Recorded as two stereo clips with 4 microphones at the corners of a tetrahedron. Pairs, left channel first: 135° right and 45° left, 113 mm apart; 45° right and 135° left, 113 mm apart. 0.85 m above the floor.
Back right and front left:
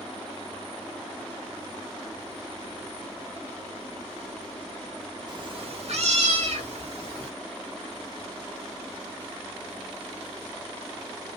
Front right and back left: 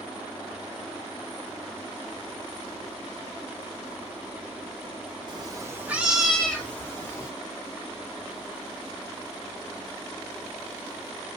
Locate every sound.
5.3 s a cat meowing: 90° left, 1.0 m; by 7.3 s 20° left, 2.0 m